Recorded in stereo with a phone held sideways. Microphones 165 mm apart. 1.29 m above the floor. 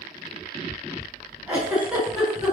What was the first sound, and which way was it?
A giggle, 10° right (ahead or behind).